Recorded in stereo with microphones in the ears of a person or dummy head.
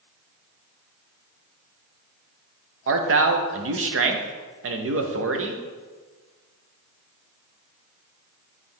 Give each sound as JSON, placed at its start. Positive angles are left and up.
{"t": 2.9, "sound": "a man speaking", "side_deg": -55, "distance_m": 0.5}